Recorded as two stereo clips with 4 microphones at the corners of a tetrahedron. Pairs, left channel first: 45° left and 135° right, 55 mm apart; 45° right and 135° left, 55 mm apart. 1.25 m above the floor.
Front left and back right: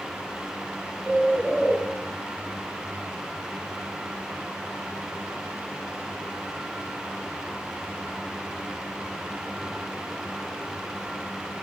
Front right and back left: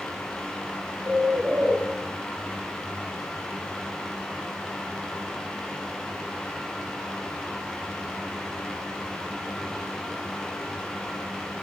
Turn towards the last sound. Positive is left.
turn(degrees=115)